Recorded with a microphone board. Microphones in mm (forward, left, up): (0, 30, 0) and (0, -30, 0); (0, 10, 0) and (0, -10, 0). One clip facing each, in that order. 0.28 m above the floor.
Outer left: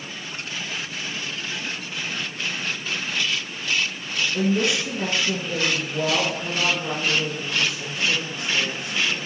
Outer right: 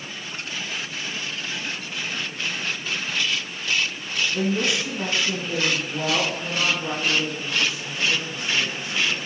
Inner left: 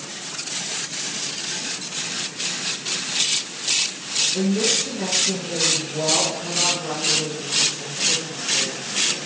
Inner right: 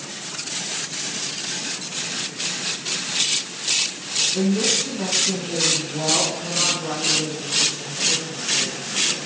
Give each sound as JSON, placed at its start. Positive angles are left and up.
{"t": 4.3, "sound": "a woman speaking", "side_deg": -35, "distance_m": 2.5}